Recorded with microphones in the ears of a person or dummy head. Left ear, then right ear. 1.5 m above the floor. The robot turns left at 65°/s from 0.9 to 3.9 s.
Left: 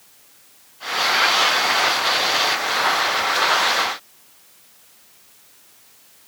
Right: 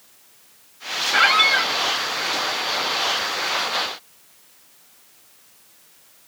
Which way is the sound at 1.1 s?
50° right.